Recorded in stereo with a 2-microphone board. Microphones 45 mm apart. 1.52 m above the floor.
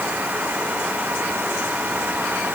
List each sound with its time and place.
Only background noise.